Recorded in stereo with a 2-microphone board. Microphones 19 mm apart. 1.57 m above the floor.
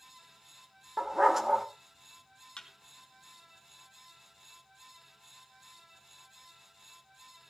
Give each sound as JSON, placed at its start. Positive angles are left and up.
{"t": 1.0, "sound": "a dog barking", "side_deg": -15, "distance_m": 1.4}
{"t": 2.6, "sound": "a thud", "side_deg": 65, "distance_m": 3.0}